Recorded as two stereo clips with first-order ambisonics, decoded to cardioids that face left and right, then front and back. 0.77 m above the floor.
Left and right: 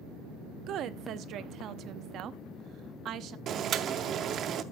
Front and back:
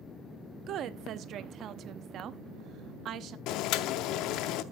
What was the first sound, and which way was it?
A woman speaking, 135° right.